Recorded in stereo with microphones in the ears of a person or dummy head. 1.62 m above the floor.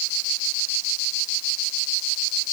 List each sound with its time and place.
Only background noise.